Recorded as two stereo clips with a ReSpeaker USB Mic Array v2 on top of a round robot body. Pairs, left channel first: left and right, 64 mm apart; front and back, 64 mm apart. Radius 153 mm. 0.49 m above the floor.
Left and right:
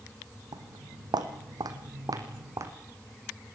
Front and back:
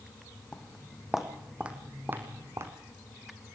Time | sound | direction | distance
0.5 | footsteps | 80° right | 2.5 m